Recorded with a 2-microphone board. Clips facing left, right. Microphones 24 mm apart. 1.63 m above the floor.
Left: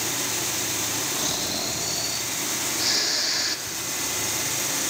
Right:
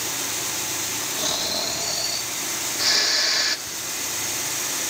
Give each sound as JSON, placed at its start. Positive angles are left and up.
{"t": 1.2, "sound": "snoring", "side_deg": -15, "distance_m": 1.4}
{"t": 3.7, "sound": "ticking", "side_deg": -5, "distance_m": 5.5}